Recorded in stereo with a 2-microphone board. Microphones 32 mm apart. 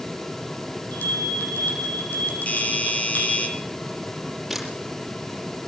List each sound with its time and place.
0.9 s a bell: 75° left (ahead or behind), 8 m
2.5 s a doorbell: 45° left (ahead or behind), 6.5 m
4.5 s a camera shutter: centre (ahead or behind), 5.5 m